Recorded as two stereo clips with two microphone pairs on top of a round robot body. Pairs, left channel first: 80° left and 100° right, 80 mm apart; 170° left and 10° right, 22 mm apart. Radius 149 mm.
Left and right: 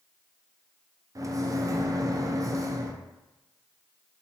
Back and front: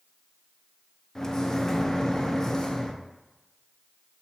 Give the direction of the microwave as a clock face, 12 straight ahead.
4 o'clock.